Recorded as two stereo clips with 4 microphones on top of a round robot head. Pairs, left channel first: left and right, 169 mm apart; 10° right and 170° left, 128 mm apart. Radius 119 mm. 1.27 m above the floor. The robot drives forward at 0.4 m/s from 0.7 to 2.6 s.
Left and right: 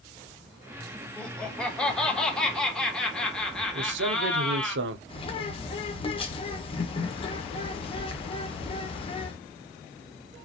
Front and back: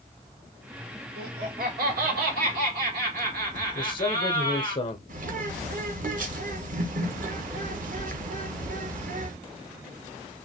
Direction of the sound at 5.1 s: 150° left.